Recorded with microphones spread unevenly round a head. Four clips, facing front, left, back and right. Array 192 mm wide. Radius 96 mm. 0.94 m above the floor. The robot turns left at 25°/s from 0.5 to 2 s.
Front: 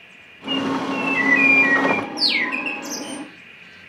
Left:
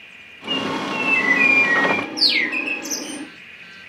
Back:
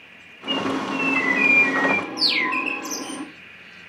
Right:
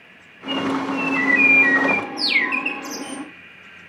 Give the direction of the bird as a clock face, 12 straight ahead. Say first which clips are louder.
Right 2 dB, front 2 dB; 12 o'clock.